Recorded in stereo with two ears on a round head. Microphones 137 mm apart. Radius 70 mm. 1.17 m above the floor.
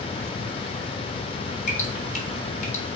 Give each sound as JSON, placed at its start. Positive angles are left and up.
{"t": 1.7, "sound": "dripping", "side_deg": 50, "distance_m": 2.0}